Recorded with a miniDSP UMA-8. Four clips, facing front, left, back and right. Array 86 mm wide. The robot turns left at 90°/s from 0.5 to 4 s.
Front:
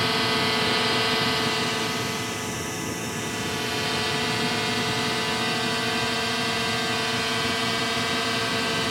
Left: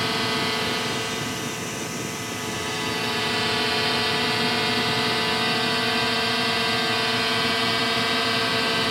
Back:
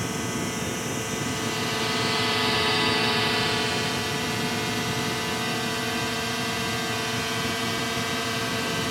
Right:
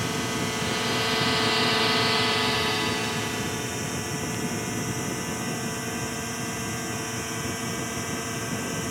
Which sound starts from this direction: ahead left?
A drone, at 0.0 s.